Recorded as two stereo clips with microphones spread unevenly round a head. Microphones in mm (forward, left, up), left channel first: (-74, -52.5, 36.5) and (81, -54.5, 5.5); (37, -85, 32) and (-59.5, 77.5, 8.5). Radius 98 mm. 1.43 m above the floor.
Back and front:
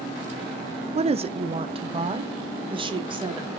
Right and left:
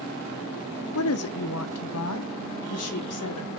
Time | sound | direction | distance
0.9 | a woman speaking | 50° right | 0.6 m